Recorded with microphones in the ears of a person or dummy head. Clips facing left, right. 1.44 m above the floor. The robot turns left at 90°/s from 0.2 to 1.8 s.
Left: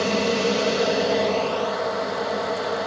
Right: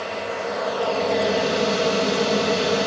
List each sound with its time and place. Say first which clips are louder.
0.0 s an aircraft: left 6 dB; 60° left (ahead or behind); by 2.9 s 40° right (ahead or behind)